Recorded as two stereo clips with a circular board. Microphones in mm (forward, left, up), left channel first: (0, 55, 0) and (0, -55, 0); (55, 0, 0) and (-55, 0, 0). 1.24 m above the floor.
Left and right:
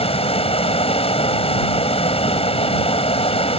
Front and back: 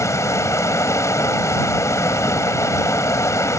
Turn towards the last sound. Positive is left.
turn(degrees=65)